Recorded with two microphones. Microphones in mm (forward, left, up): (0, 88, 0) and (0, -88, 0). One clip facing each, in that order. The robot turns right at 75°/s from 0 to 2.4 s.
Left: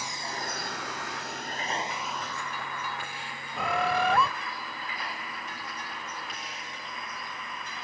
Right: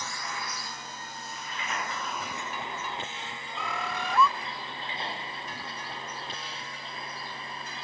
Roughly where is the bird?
Left.